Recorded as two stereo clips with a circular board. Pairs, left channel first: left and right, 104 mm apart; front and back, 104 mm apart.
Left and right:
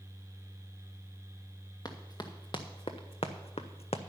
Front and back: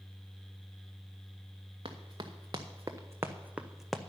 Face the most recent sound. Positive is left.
turn(degrees=85)